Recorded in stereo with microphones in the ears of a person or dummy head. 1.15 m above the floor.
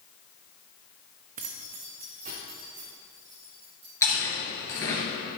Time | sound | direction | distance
1.4 | keys jangling | 45° right (ahead or behind) | 0.7 m
4.0 | chewing | 15° left (ahead or behind) | 3 m